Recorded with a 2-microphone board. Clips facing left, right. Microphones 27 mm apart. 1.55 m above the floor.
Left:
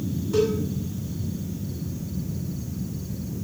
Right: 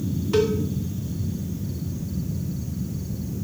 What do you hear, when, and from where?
0.3 s a cowbell: 70° right (ahead or behind), 2.5 m